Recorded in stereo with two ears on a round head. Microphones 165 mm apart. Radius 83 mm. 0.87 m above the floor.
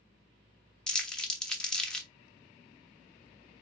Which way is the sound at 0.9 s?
5° left (ahead or behind).